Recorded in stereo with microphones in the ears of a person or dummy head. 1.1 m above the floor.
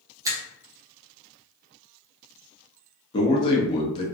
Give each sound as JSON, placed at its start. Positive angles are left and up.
{"t": 0.2, "sound": "a finger snap", "side_deg": -15, "distance_m": 0.6}
{"t": 3.1, "sound": "a man speaking", "side_deg": 30, "distance_m": 0.8}